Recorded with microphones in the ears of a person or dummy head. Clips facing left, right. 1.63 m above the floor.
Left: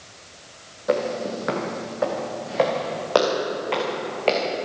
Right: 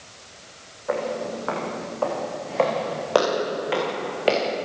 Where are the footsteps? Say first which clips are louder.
Left 3 dB; 40° left (ahead or behind), 4 m; by 4.5 s 15° right (ahead or behind), 6 m.